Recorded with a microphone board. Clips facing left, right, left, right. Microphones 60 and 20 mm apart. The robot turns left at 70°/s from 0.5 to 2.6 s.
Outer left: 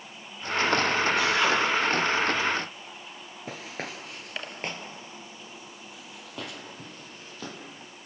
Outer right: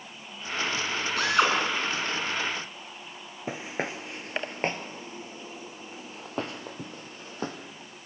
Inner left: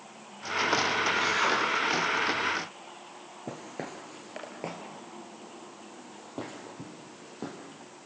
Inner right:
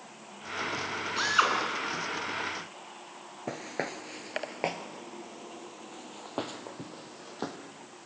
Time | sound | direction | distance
1.2 | a drill | 60° right (ahead or behind) | 7 m
3.5 | footsteps | 25° right (ahead or behind) | 1.1 m